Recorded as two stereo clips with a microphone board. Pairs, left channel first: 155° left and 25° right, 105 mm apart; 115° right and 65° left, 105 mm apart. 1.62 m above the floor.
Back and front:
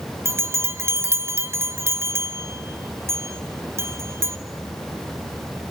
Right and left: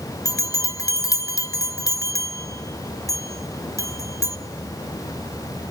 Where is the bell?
75° right, 1.0 m.